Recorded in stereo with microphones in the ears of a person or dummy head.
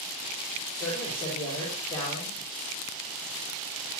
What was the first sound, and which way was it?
A man speaking, 25° left (ahead or behind).